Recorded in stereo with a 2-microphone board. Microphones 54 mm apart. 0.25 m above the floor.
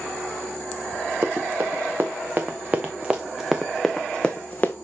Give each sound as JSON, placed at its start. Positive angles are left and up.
{"t": 1.2, "sound": "running footsteps", "side_deg": -50, "distance_m": 2.0}